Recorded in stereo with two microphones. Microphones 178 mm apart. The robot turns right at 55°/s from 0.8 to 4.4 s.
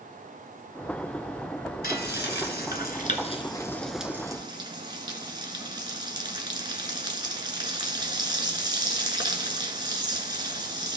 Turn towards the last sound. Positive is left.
turn(degrees=-155)